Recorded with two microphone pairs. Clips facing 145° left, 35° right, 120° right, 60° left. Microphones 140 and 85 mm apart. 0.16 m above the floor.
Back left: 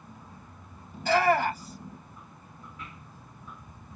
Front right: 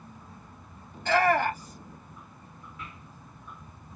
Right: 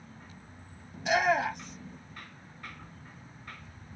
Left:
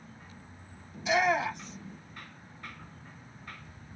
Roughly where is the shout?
Behind right.